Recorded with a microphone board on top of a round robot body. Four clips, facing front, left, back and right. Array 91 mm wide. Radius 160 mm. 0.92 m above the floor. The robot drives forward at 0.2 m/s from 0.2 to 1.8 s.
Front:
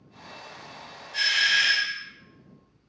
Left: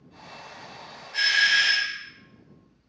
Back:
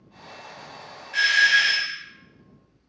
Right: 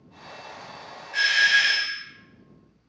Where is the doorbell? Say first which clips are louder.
Right 2 dB, back 6 dB; 155° right, 1.1 m.